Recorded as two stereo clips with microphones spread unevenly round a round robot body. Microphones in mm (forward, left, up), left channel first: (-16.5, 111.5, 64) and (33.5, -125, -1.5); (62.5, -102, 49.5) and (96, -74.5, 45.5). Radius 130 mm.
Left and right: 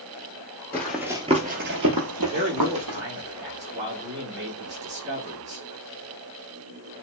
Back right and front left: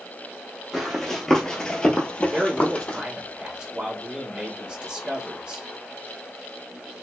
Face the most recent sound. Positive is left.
turn(degrees=-15)